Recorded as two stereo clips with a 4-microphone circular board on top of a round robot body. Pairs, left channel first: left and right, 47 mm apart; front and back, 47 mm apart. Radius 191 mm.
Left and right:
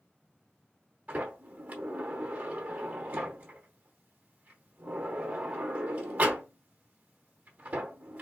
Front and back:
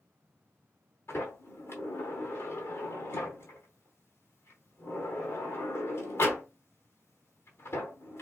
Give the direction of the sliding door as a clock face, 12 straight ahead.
1 o'clock.